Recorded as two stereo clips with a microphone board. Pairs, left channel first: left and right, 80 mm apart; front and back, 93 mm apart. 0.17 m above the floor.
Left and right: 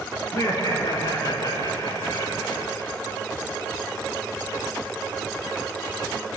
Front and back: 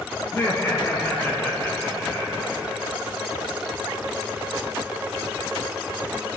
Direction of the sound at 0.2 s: 60° left.